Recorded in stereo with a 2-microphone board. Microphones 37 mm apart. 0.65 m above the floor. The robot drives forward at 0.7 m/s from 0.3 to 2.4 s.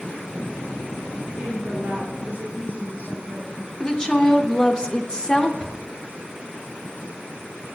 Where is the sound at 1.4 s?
55° right (ahead or behind), 1.7 m; by 3.7 s 40° right (ahead or behind), 2 m.